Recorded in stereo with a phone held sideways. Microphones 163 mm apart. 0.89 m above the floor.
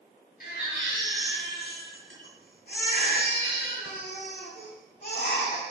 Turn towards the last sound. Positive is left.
turn(degrees=75)  # may be behind; listen again after turning